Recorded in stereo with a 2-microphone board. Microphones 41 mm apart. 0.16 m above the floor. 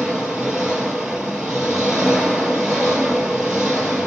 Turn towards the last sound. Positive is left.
turn(degrees=-15)  # may be behind; listen again after turning